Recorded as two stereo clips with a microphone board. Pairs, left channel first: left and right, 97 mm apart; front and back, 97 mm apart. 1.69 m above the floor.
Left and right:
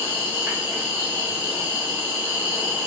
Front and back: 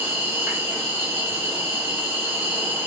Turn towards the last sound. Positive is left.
turn(degrees=-140)